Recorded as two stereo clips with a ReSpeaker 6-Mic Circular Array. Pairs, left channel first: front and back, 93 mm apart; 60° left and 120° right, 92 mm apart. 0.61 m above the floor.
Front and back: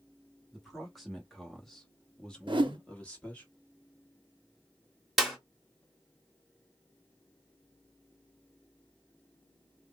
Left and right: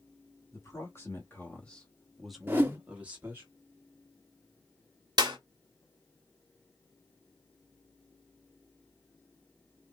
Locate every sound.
0.5 s a man speaking: 95° left, 1.3 m; by 3.5 s 65° right, 1.2 m
2.5 s a whoosh: 175° left, 0.7 m
5.2 s a clap: 90° right, 1.2 m